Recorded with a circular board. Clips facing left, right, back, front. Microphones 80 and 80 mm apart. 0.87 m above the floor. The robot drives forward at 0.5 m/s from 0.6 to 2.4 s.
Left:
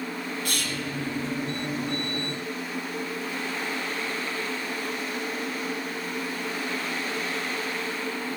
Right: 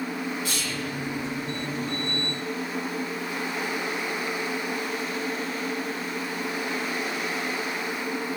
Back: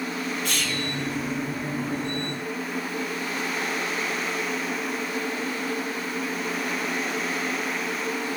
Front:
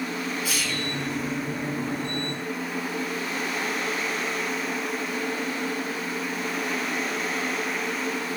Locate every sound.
0.5 s whispering: 85° left, 0.6 m; by 0.9 s 100° left, 0.6 m